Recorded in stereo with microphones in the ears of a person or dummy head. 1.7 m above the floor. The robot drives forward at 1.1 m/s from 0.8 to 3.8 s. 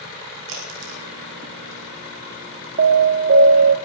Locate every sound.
0.5 s a crack: 80° right, 6 m; by 1.8 s 75° right (ahead or behind), 6 m
2.8 s an alarm: 50° right (ahead or behind), 2 m; by 3.8 s 65° right (ahead or behind), 1.9 m